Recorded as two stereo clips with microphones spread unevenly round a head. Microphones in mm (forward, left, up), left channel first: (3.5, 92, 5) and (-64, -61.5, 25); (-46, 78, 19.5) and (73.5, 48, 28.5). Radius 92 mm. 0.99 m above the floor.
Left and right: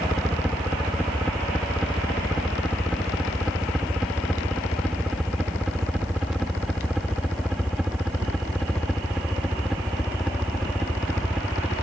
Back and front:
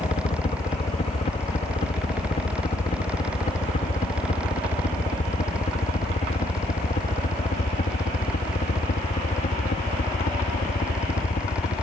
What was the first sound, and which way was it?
A helicopter, 155° left.